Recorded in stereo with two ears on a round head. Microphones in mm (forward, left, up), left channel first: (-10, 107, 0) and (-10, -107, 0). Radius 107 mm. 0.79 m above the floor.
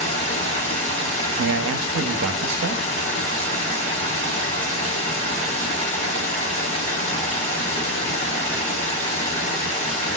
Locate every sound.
0.0 s running water: 25° left (ahead or behind), 1.5 m
1.4 s a man speaking: 55° right (ahead or behind), 0.7 m